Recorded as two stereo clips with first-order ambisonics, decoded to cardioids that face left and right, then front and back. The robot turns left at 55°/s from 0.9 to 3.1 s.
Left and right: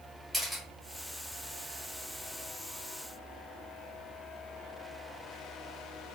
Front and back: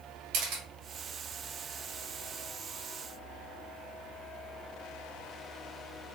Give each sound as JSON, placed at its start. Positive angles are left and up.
{"t": 0.3, "sound": "a camera shutter", "azimuth_deg": 175, "distance_m": 1.0}